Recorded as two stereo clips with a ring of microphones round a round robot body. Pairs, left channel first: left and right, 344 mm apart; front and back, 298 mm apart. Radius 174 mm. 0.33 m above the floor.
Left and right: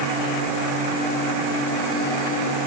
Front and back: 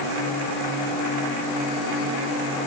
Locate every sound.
Only background noise.